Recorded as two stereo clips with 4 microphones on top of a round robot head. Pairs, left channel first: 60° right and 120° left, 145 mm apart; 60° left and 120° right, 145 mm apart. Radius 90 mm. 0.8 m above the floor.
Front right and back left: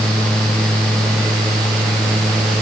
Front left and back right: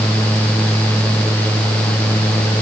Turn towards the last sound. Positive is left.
No sound to turn to.